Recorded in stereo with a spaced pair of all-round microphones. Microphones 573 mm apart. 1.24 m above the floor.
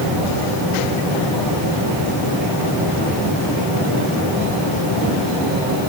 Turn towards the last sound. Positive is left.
No sound to turn to.